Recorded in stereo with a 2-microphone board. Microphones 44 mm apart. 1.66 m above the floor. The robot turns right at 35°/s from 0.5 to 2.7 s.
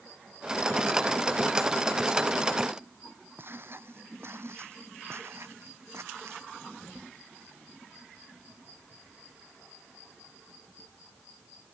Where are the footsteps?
55° right (ahead or behind); by 6.5 s 75° right (ahead or behind).